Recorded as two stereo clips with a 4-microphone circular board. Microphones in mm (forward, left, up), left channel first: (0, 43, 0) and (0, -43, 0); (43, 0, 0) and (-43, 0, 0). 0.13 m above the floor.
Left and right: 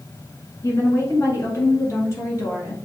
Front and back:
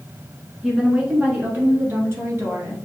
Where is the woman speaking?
100° left, 1.4 m; by 2.8 s 135° left, 2 m.